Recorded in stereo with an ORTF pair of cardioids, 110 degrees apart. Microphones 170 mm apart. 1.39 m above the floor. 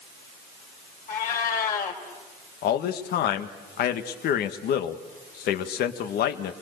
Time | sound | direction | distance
1.1 | a cat meowing | 55° left | 4 m
2.6 | a man speaking | 65° left | 1.7 m